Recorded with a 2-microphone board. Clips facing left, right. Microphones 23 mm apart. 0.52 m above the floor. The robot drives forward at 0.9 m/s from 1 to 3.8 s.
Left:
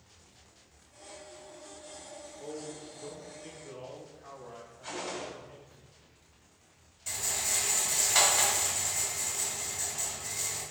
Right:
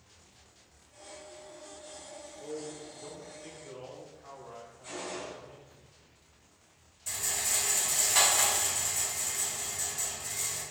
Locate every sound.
2.4 s a man speaking: 20° left (ahead or behind), 1.4 m; by 5.8 s 10° left (ahead or behind), 2.5 m
4.8 s a gunshot: 55° left (ahead or behind), 1.8 m
7.1 s a rattle: 20° left (ahead or behind), 2 m